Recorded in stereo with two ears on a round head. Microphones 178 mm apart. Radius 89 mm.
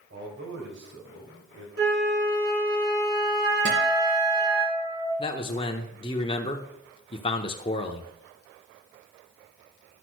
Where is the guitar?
40° right (ahead or behind), 4 m.